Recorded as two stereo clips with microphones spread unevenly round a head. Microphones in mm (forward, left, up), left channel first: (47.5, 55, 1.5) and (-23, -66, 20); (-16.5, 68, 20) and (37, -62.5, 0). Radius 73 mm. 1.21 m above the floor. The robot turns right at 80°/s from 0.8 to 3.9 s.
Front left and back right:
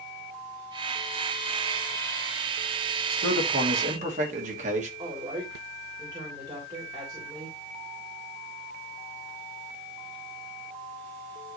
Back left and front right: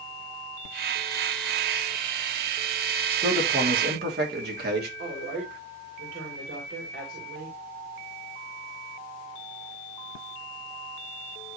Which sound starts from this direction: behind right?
A man speaking, at 3.1 s.